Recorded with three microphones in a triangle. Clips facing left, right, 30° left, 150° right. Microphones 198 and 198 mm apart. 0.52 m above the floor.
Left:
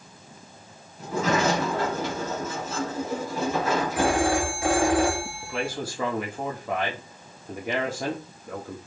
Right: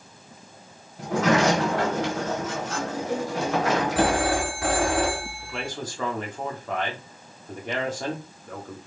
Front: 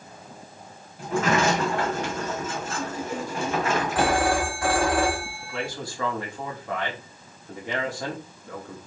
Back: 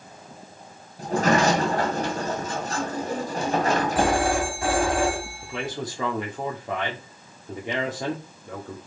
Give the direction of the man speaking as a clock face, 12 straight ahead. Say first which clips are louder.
Left 5 dB, back 2 dB; 7 o'clock.